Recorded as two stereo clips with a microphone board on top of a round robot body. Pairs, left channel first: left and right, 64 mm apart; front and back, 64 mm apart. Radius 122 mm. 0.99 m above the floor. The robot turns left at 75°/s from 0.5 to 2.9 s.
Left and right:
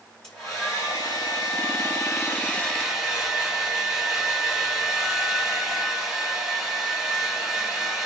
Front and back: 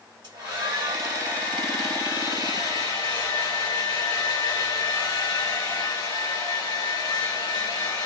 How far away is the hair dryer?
About 1.2 m.